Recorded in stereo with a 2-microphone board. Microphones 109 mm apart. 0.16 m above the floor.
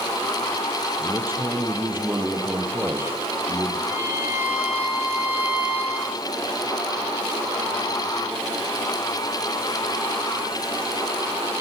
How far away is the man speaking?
About 4.5 m.